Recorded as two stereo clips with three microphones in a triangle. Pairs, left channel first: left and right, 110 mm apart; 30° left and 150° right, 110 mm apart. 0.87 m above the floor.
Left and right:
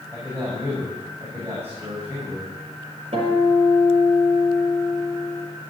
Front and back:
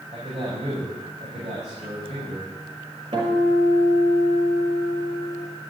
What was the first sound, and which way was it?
A man speaking, 160° right.